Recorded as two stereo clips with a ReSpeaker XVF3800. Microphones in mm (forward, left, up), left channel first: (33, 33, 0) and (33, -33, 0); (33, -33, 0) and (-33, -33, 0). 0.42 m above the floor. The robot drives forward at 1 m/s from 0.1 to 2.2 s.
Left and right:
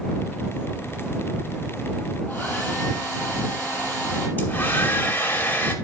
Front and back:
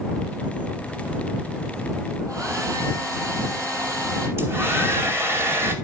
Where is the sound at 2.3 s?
150° left, 4 m.